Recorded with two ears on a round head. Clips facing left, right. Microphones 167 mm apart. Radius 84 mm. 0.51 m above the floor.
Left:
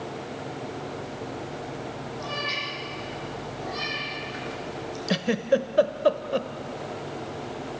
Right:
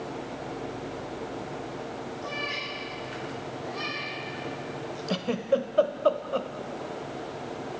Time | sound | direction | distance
2.2 | a cat meowing | 75° left (ahead or behind) | 9 m
5.1 | a giggle | 15° left (ahead or behind) | 0.9 m